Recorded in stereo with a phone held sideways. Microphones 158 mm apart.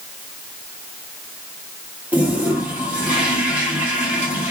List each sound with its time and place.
2.1 s a toilet flushing: 10° right (ahead or behind), 1.3 m